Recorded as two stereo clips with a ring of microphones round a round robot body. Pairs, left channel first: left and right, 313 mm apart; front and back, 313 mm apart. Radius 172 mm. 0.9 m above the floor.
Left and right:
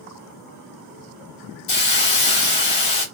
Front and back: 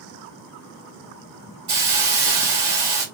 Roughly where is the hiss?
Behind left.